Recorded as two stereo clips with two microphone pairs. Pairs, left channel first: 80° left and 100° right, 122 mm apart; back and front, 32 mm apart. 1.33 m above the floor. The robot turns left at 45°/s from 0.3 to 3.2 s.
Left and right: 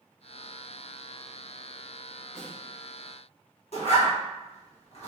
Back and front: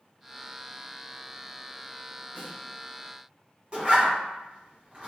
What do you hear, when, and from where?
2.4 s a snare drum: 10° right, 1.6 m; by 2.6 s 20° right, 1.6 m
3.7 s a zipper: 50° left, 0.9 m